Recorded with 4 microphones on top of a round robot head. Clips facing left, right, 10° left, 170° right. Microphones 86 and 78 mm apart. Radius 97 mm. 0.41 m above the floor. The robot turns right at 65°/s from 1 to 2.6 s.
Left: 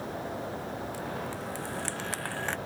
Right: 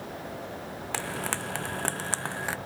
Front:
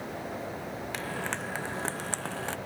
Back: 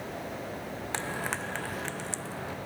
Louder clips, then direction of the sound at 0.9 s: Right 2 dB, back 2 dB; 105° right.